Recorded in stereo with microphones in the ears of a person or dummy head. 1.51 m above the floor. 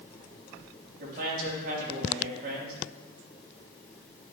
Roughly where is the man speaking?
Right.